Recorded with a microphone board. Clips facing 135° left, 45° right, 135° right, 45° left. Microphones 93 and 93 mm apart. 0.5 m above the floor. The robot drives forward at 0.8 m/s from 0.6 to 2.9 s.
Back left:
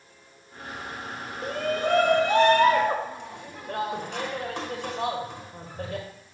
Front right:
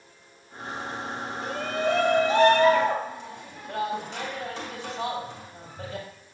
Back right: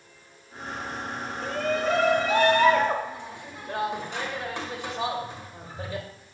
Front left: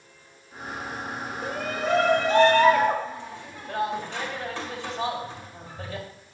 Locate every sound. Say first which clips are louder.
1.4 s a shout: back left 1 dB, back right 3 dB; 120° left, 1.3 m; by 6.1 s 155° left, 2 m